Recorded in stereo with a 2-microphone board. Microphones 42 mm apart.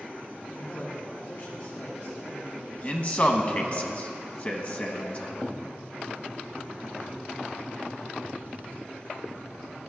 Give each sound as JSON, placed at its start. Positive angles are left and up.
{"t": 0.5, "sound": "a man speaking", "side_deg": 50, "distance_m": 2.5}
{"t": 2.8, "sound": "a man speaking", "side_deg": 35, "distance_m": 1.1}